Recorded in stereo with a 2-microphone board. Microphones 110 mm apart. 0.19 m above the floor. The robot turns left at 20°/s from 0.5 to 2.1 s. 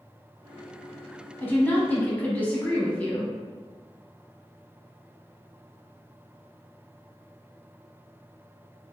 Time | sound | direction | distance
1.4 | a woman speaking | 20° left (ahead or behind) | 1.0 m